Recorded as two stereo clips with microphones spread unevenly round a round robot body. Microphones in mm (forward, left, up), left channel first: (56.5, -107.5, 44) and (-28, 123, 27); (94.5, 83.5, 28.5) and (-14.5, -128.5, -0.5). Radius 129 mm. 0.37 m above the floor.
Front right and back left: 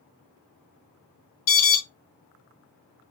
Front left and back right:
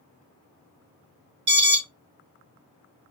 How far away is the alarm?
About 1.7 m.